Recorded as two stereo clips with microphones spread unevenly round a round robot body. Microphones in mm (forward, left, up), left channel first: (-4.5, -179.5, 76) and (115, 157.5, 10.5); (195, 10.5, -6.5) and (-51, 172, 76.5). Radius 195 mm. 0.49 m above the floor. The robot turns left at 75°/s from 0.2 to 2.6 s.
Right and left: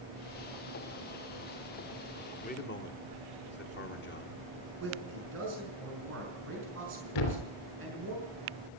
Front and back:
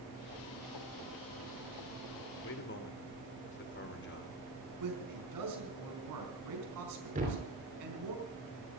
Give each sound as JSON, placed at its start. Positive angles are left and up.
{"t": 2.4, "sound": "a man speaking", "azimuth_deg": -35, "distance_m": 1.9}
{"t": 4.8, "sound": "a man speaking", "azimuth_deg": 130, "distance_m": 5.0}
{"t": 7.2, "sound": "a thud", "azimuth_deg": -140, "distance_m": 3.0}